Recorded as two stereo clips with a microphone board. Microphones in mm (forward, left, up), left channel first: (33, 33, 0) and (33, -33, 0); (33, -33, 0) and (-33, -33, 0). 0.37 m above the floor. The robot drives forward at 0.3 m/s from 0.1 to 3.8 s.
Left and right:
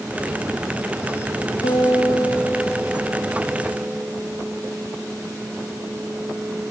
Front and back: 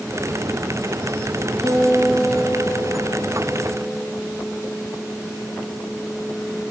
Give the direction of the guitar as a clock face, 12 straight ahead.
9 o'clock.